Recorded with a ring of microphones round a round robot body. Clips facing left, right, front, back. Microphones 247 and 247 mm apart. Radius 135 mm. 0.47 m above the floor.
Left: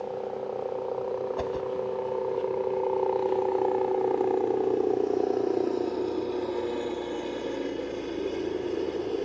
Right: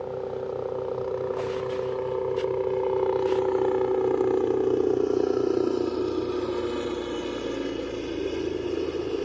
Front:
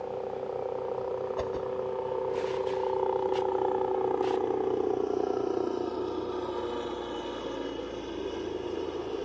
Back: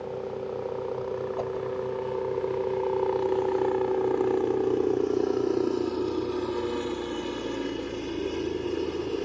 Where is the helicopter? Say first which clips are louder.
Right 2 dB, back 2 dB; 140° right; by 9.3 s 165° right.